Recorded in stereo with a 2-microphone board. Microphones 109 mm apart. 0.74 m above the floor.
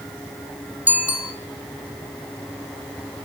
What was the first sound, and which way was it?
A bicycle bell, 15° right (ahead or behind).